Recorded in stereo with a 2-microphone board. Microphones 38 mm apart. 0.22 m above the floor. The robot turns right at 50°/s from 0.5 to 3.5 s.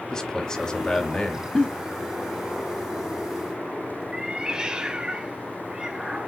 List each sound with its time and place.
0.1 s a man speaking: 35° left, 1.1 m; by 1.4 s 85° left, 1.1 m
1.6 s a giggle: 20° left (ahead or behind), 1.0 m
4.1 s a cat meowing: 20° right (ahead or behind), 0.5 m